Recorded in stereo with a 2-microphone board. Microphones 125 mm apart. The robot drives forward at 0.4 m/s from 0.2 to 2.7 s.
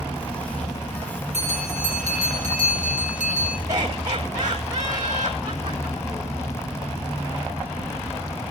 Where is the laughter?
25° right (ahead or behind), 5 m.